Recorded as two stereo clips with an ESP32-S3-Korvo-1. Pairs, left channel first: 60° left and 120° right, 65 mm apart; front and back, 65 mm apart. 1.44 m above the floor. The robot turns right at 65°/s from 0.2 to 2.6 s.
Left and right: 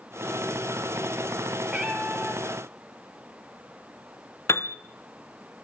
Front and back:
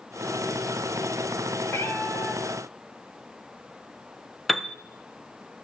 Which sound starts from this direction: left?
A piano, at 4.5 s.